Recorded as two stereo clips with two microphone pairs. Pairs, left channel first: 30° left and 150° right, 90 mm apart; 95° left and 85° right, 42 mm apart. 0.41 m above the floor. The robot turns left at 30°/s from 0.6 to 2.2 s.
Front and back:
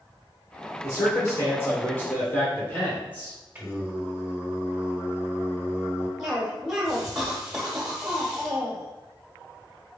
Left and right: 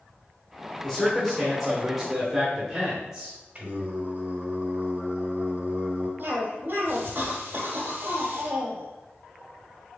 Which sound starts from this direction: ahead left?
A man speaking, at 0.8 s.